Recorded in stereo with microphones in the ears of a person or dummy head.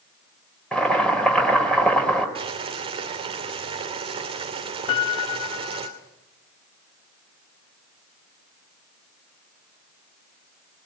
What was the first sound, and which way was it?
Boiling, 5° left (ahead or behind).